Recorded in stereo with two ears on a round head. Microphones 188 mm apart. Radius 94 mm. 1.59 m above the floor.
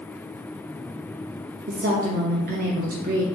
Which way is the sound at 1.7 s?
45° right (ahead or behind).